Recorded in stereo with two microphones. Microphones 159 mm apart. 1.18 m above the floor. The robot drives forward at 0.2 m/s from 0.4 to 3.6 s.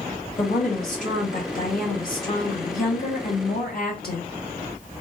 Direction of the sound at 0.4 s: 55° left (ahead or behind).